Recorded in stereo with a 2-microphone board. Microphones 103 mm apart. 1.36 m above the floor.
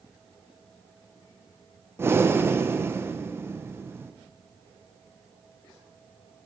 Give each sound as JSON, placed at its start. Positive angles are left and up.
{"t": 2.0, "sound": "breathing", "side_deg": -25, "distance_m": 1.1}